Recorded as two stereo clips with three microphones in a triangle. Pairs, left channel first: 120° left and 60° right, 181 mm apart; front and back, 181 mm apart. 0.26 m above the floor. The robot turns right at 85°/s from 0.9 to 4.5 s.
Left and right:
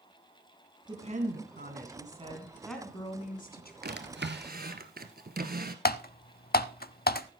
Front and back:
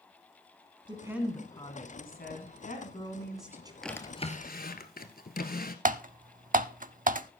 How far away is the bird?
No bird in this recording.